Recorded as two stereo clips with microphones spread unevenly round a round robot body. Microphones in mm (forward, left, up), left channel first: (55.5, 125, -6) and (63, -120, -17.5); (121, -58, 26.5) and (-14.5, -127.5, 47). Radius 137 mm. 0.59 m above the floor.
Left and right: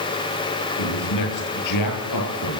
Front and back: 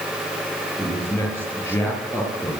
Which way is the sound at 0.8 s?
105° left.